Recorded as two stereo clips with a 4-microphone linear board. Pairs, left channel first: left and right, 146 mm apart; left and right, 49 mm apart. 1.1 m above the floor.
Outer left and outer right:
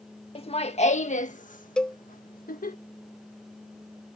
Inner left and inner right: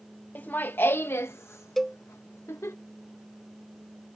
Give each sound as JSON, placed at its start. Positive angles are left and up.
{"t": 0.3, "sound": "laughter", "side_deg": 40}
{"t": 1.8, "sound": "a cowbell", "side_deg": 5}